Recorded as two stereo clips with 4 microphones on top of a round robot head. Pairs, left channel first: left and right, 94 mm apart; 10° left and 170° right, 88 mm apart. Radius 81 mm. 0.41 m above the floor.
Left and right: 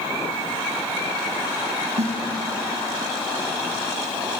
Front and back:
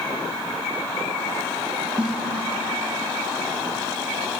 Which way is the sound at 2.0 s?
90° right.